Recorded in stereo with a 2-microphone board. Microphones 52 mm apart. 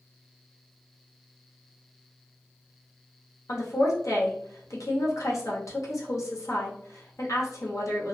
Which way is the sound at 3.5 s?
80° left.